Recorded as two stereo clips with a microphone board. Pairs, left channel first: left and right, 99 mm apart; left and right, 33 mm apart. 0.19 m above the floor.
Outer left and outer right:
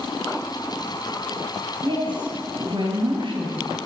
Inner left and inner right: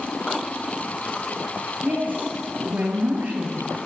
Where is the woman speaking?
55° right (ahead or behind), 3 m.